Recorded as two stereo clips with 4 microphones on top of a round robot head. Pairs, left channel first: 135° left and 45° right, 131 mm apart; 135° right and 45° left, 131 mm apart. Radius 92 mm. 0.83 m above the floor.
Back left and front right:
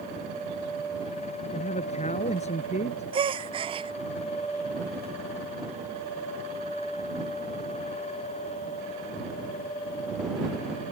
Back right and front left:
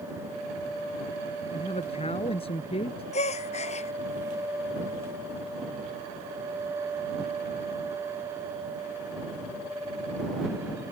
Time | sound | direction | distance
1.5 | a man speaking | 175° left | ?
3.1 | a gasp | 95° right | ?